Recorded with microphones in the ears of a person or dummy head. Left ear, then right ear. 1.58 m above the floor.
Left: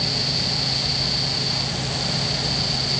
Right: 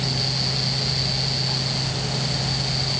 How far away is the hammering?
I don't hear hammering.